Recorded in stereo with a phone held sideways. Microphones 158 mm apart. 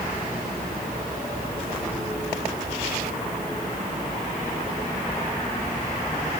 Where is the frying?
I don't hear frying.